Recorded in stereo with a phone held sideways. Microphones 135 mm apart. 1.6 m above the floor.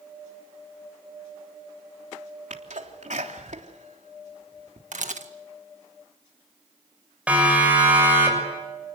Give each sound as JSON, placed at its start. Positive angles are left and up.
{"t": 2.5, "sound": "a sneeze", "side_deg": -65, "distance_m": 3.5}
{"t": 4.9, "sound": "a camera shutter", "side_deg": -65, "distance_m": 1.8}
{"t": 7.3, "sound": "a siren", "side_deg": -10, "distance_m": 7.5}